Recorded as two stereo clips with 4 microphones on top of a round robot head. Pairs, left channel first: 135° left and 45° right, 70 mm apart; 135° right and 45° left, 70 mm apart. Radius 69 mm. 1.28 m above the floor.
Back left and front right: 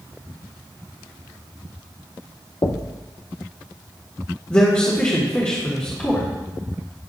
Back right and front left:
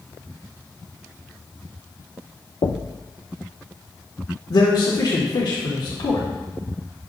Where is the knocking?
170° right, 0.5 m.